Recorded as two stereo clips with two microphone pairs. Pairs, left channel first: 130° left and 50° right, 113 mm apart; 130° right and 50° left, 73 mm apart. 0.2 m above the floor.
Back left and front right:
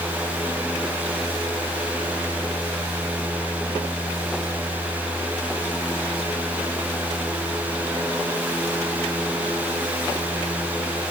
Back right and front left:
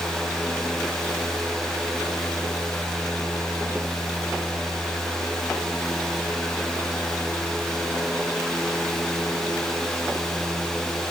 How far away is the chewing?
I don't hear chewing.